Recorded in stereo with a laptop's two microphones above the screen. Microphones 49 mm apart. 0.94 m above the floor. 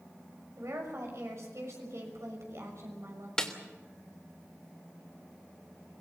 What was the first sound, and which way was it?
A woman speaking, 75° right (ahead or behind).